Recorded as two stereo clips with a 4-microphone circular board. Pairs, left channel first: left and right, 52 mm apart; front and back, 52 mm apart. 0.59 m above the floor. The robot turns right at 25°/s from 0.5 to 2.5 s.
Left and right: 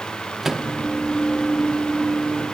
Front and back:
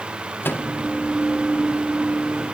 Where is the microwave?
10° right, 0.6 m; by 0.7 s 5° right, 0.6 m.